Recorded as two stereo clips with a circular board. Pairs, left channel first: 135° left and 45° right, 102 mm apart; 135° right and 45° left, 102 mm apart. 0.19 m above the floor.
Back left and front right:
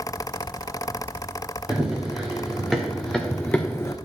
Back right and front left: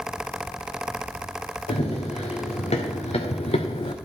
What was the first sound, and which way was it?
Running footsteps, 125° right.